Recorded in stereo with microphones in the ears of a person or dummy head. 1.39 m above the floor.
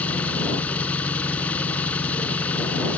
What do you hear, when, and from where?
0.0 s an engine running: 5° left (ahead or behind)